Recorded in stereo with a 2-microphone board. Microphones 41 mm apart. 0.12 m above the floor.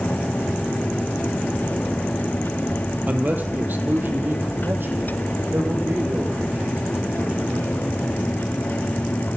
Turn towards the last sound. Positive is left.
turn(degrees=-65)  # may be behind; listen again after turning